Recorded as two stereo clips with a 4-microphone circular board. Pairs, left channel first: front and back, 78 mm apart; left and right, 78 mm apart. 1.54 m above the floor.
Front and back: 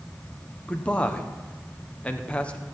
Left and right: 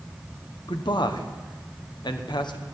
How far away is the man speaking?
About 1.2 m.